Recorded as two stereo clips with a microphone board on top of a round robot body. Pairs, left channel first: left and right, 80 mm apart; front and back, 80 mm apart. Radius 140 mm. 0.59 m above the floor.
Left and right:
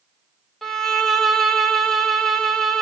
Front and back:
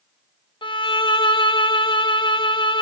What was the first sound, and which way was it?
A violin, 5° left.